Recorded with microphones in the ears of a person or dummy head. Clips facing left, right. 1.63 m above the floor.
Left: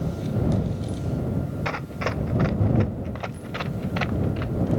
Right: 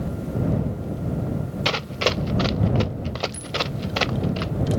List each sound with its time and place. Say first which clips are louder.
1.6 s running footsteps: right 4 dB; 50° right (ahead or behind); by 4.5 s 55° right (ahead or behind)